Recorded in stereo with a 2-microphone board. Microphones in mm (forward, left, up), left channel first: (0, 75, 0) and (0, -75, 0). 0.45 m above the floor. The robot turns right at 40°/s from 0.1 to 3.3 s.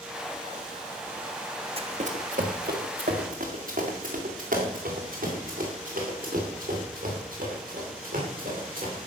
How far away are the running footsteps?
About 1.7 m.